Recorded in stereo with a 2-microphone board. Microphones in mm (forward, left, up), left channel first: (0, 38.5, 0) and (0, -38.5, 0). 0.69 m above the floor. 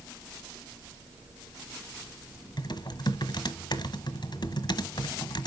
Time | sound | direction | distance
2.6 | typing on a keyboard | 60° left (ahead or behind) | 1.2 m